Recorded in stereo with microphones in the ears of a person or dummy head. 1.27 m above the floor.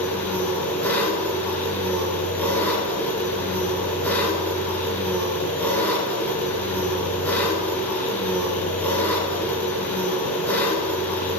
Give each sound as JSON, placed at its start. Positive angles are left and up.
{"t": 0.0, "sound": "an engine running", "side_deg": 15, "distance_m": 5.0}